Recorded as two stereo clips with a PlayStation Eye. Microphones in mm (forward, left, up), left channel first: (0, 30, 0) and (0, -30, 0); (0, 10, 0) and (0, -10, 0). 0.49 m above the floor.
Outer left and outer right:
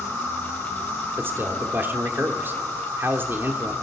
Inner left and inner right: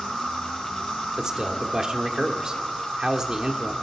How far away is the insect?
About 6.5 m.